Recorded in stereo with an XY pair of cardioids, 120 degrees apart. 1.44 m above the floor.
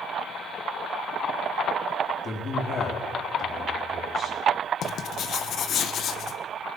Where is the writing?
55° left, 1.2 m.